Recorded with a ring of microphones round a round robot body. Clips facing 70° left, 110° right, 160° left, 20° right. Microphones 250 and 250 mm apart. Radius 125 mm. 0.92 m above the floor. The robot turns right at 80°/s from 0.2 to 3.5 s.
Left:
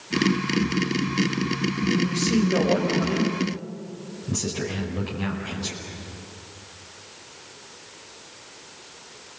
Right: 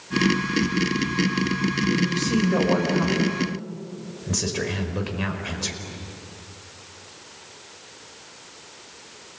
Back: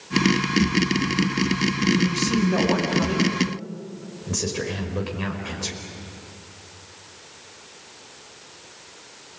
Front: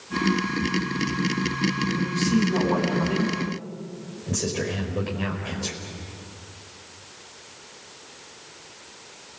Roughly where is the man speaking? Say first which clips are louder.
Left 1 dB, back 1 dB; left.